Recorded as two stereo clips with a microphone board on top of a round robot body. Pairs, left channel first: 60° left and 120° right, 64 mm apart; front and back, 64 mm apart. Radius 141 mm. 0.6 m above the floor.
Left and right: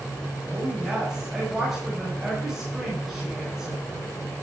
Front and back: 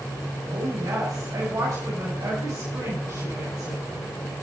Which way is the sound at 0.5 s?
155° left.